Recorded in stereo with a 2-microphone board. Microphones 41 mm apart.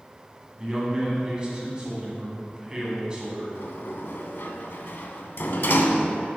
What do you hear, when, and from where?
0.6 s a man speaking: 25° right (ahead or behind), 1.9 m
3.5 s a sliding door: 60° left (ahead or behind), 0.5 m